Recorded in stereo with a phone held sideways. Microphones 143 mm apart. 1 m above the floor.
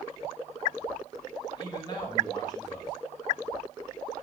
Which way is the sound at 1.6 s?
30° left (ahead or behind).